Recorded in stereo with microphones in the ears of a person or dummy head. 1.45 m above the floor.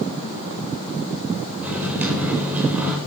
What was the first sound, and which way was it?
A microwave, 5° right (ahead or behind).